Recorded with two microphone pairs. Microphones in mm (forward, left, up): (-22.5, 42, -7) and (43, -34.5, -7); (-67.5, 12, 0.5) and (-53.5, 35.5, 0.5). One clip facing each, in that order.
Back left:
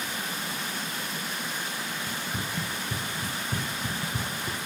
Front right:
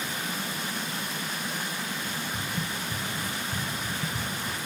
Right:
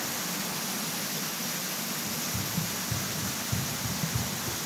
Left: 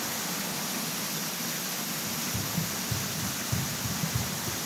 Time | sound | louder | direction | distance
2.1 | running footsteps | even, even | 135° left | 4 m